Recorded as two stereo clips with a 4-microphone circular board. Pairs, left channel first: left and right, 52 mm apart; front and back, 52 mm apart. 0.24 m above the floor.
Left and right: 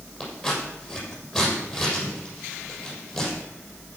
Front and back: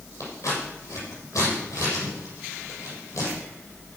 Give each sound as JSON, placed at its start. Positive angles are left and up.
{"t": 0.2, "sound": "scissors", "azimuth_deg": 5, "distance_m": 6.0}